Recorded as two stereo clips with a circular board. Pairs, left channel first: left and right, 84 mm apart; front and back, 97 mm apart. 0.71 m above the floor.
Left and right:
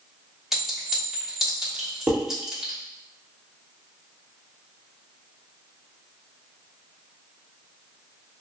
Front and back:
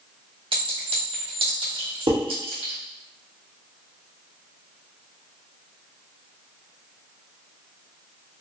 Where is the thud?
No thud in this recording.